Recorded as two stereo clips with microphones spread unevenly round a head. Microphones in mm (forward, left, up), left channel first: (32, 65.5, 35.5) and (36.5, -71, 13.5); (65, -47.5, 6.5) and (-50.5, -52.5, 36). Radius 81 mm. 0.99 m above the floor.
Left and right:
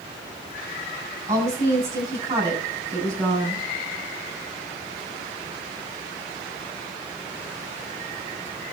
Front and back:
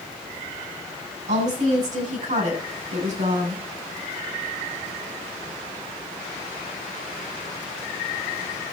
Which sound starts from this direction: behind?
A woman speaking, at 1.3 s.